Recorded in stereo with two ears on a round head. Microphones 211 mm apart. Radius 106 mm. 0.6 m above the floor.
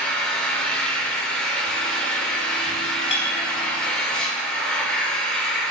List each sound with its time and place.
0.0 s an engine running: 5° left (ahead or behind), 0.9 m
3.1 s a clink: 55° left (ahead or behind), 1.4 m